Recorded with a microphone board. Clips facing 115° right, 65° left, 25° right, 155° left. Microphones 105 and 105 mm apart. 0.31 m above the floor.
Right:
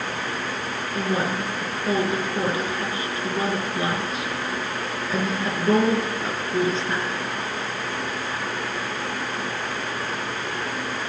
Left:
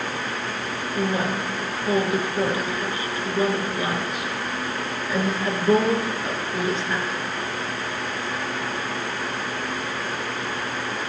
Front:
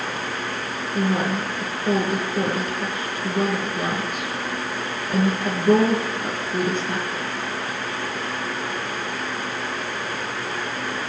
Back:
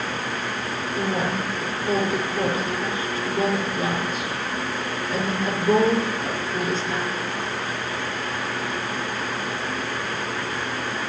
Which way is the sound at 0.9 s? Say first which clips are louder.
Even, front 3 dB; 50° right.